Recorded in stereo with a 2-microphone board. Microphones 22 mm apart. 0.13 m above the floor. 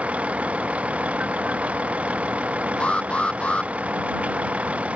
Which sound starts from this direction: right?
A vehicle, at 0.0 s.